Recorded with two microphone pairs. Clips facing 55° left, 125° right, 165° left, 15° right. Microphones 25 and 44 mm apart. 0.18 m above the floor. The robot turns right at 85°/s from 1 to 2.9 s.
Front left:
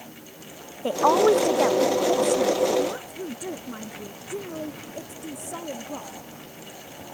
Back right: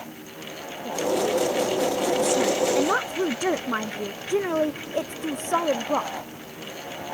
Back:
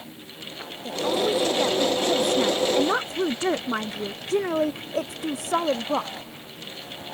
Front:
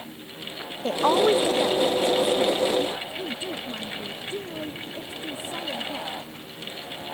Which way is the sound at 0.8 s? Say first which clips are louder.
Front left 6 dB, front 4 dB; 30° left.